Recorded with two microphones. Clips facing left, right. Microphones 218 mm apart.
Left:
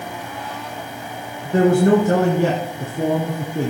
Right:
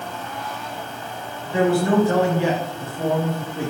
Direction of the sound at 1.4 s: 45° left (ahead or behind).